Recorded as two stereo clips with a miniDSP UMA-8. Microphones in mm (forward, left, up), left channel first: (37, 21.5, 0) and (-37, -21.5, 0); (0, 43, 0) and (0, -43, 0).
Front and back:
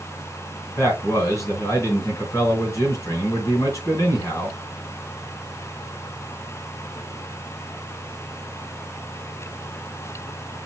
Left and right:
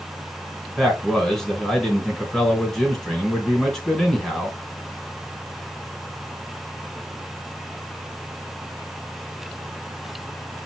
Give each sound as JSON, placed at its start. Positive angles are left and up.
{"t": 0.8, "sound": "a man speaking", "azimuth_deg": 5, "distance_m": 1.9}